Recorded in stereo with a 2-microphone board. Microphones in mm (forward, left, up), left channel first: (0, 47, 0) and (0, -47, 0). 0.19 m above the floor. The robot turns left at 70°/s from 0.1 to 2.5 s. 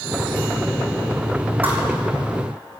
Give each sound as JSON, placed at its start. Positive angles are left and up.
{"t": 1.6, "sound": "a thud", "side_deg": -20, "distance_m": 3.0}